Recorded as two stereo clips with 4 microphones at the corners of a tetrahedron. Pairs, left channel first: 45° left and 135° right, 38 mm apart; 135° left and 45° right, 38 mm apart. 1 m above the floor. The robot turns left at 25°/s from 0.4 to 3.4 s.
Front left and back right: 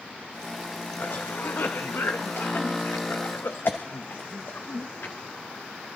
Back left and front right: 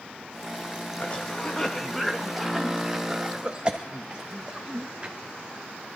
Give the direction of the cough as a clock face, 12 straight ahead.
9 o'clock.